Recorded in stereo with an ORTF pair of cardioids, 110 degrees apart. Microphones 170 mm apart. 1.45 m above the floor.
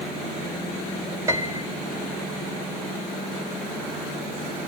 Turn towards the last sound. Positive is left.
turn(degrees=-15)